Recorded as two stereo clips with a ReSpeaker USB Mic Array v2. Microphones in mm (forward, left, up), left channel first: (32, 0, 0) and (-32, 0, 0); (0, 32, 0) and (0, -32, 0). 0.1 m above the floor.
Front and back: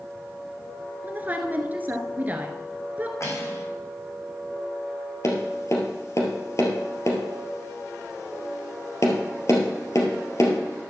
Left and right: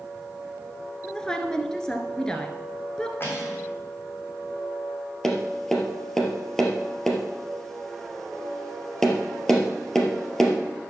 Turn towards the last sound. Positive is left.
turn(degrees=10)